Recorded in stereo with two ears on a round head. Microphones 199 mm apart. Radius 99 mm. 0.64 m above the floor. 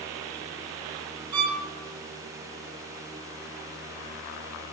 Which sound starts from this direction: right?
A violin, at 1.3 s.